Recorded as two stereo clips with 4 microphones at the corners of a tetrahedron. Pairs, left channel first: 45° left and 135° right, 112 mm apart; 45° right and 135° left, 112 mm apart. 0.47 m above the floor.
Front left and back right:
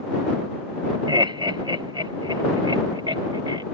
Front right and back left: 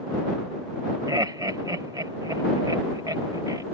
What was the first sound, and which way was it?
Laughter, 175° right.